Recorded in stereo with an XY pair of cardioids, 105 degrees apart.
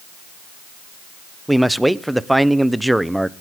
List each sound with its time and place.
1.5 s a man speaking: 5° right, 0.7 m